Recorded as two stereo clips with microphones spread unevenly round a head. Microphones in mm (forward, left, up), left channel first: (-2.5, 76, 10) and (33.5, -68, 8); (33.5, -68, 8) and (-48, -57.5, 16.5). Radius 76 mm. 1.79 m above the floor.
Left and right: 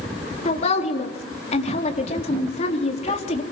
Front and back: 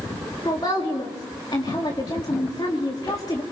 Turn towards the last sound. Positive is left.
turn(degrees=55)